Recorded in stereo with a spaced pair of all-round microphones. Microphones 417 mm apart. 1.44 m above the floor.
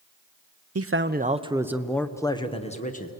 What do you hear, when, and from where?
0.8 s a man speaking: 35° right (ahead or behind), 0.7 m; by 3.1 s 20° left (ahead or behind), 1.4 m